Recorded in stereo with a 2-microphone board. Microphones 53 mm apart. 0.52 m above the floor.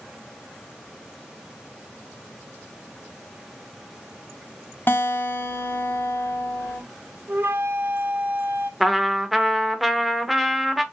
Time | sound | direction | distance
4.9 | a guitar | 45° left (ahead or behind) | 0.7 m
7.3 | a flute | 40° right (ahead or behind) | 0.5 m
8.8 | a trumpet | 5° right (ahead or behind) | 0.6 m